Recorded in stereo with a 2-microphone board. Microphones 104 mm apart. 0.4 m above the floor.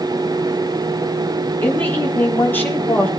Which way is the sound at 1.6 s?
20° left (ahead or behind).